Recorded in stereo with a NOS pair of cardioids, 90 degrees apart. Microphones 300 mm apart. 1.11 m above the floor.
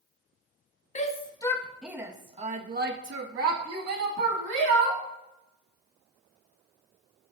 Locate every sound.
0.9 s a shout: 25° left, 1.6 m; by 5.0 s 70° right, 3 m